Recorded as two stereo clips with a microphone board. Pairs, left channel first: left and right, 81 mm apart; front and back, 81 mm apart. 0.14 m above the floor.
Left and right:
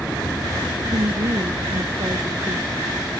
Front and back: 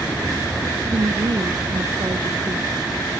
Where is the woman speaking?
135° right; by 2.9 s 140° right.